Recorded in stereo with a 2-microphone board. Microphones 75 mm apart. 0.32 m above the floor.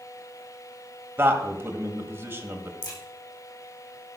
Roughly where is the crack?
Left.